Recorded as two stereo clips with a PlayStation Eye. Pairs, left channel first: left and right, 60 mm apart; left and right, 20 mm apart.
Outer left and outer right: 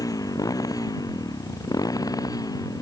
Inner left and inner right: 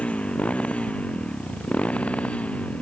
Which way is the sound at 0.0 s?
80° left.